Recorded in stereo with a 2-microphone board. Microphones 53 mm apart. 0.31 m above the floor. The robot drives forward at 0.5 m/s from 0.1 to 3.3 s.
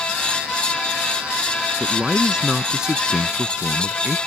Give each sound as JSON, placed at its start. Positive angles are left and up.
{"t": 1.8, "sound": "a man speaking", "side_deg": -10}